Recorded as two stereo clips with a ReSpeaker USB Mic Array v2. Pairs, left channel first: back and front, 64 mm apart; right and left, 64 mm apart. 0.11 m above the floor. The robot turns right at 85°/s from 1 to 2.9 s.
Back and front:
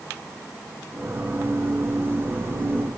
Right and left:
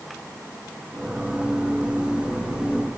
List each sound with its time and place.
Only background noise.